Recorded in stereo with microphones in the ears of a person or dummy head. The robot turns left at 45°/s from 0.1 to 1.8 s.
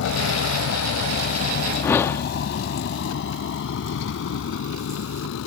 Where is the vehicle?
75° left (ahead or behind).